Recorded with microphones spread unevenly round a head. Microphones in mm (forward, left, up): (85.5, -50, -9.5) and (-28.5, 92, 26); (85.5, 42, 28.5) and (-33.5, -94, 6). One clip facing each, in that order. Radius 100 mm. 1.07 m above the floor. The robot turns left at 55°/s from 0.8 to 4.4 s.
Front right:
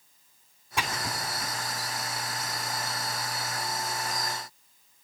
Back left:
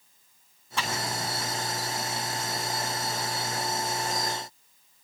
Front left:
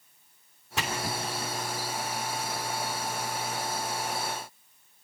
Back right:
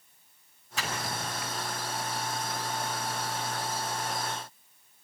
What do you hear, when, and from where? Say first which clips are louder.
0.8 s a splash: back left 1 dB, front left 3 dB; 30° left, 3 m; by 1.5 s 10° right, 3 m